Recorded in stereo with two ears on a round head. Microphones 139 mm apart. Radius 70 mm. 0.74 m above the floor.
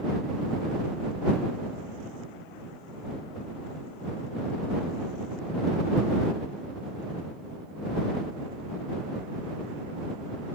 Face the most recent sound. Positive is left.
No sound to turn to.